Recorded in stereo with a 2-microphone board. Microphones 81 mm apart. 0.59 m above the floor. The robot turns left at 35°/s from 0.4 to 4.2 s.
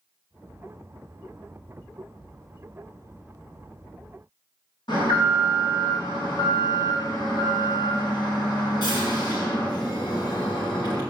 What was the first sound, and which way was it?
An alarm, 70° left (ahead or behind).